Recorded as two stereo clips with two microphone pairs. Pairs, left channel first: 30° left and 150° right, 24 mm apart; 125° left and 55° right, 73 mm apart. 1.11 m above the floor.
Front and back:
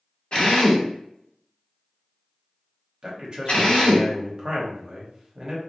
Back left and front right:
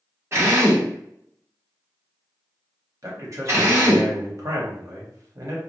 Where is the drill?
5° right, 1.1 m.